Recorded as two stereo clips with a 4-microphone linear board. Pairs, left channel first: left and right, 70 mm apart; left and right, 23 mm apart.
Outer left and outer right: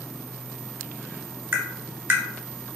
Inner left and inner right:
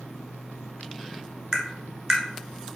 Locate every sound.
1.5 s tapping: 30° right (ahead or behind), 0.9 m